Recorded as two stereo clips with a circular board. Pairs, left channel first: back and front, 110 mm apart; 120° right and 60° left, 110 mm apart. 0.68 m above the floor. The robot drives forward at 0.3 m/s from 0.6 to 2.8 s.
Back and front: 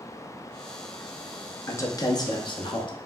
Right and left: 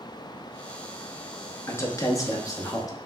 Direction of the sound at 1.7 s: 150° right.